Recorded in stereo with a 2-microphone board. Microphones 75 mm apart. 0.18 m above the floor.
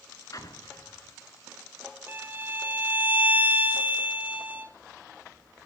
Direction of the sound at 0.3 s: 55° left (ahead or behind).